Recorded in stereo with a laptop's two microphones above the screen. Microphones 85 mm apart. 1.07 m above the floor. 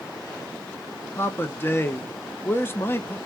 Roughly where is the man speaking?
Left.